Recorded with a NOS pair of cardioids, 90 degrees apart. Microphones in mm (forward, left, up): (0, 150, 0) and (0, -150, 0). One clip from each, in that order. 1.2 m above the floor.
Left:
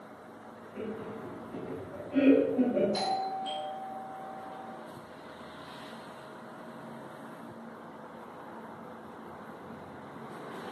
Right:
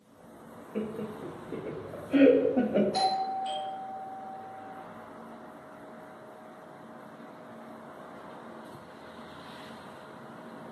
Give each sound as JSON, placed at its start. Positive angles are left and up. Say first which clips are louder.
{"t": 0.8, "sound": "laughter", "louder": "right 3 dB", "azimuth_deg": -60, "distance_m": 0.7}
{"t": 2.9, "sound": "a doorbell", "louder": "right 3 dB", "azimuth_deg": -25, "distance_m": 1.4}